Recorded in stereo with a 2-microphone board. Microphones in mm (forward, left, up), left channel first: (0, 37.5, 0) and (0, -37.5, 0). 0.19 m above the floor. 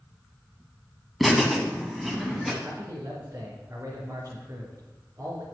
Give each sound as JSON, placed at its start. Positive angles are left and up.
{"t": 1.2, "sound": "laughter", "side_deg": 0, "distance_m": 1.2}
{"t": 2.6, "sound": "a man speaking", "side_deg": -45, "distance_m": 3.0}